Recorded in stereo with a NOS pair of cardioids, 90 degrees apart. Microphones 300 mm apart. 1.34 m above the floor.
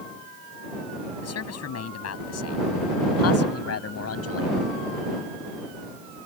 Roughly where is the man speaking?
Ahead left.